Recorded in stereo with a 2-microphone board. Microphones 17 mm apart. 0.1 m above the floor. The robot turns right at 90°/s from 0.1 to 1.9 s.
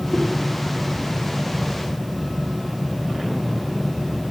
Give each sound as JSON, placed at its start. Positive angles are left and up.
{"t": 0.1, "sound": "a whoosh", "side_deg": -5, "distance_m": 7.0}